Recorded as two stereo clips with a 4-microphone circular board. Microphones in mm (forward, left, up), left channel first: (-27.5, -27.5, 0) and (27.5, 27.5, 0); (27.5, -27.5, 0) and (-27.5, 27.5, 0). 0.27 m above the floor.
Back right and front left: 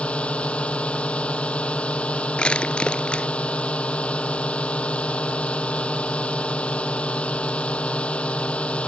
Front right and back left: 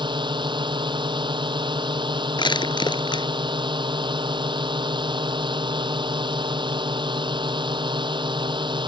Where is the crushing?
55° right.